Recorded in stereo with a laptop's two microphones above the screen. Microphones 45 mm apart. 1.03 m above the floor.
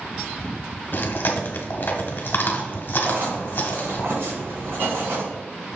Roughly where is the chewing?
Left.